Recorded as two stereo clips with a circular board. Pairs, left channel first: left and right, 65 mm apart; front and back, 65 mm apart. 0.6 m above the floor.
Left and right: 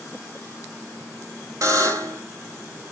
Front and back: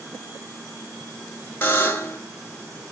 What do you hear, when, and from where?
1.6 s a buzzer: 60° right, 1.6 m